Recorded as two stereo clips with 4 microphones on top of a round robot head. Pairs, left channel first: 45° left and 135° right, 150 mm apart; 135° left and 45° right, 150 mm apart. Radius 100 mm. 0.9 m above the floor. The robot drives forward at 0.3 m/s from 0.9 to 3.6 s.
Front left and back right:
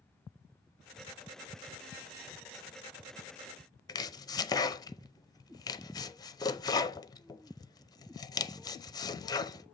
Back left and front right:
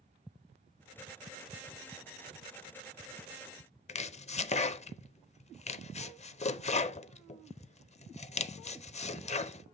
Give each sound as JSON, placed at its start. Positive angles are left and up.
{"t": 3.9, "sound": "chopping", "azimuth_deg": 105, "distance_m": 0.5}